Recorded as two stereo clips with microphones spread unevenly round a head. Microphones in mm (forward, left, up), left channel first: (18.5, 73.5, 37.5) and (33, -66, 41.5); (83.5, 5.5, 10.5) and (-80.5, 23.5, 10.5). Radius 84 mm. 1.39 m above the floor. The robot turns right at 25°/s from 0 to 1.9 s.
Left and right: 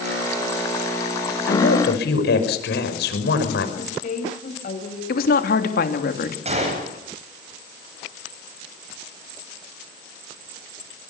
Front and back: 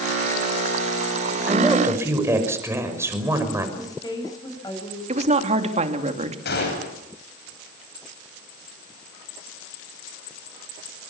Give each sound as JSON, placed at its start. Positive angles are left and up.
{"t": 1.5, "sound": "a woman speaking", "azimuth_deg": 90, "distance_m": 5.5}
{"t": 3.8, "sound": "a woman speaking", "azimuth_deg": 65, "distance_m": 7.5}
{"t": 5.1, "sound": "a woman speaking", "azimuth_deg": 120, "distance_m": 3.0}
{"t": 6.5, "sound": "a gunshot", "azimuth_deg": -40, "distance_m": 10.0}